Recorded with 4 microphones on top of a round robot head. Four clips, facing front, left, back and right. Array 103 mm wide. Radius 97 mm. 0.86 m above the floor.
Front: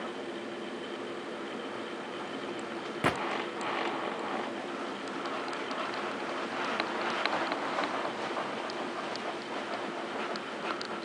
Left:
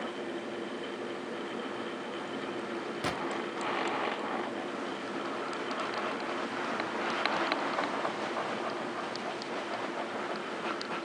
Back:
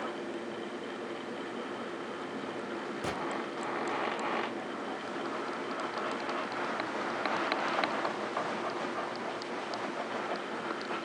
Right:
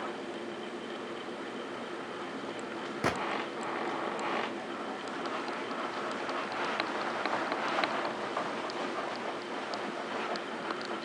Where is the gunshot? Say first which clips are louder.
Right 4 dB, front 8 dB; 30° right, 0.7 m.